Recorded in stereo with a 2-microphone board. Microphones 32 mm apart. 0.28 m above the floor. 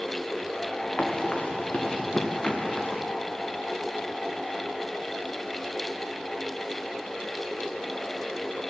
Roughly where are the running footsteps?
Left.